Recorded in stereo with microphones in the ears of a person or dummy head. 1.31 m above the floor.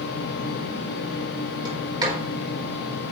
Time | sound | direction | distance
1.6 | a sliding door | 20° right (ahead or behind) | 4 m